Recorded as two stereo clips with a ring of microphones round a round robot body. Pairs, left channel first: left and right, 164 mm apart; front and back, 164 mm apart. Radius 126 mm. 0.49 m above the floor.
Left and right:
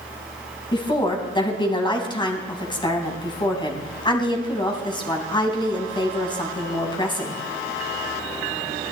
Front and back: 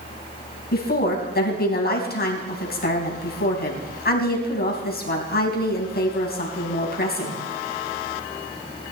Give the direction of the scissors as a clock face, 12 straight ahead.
I don't hear scissors.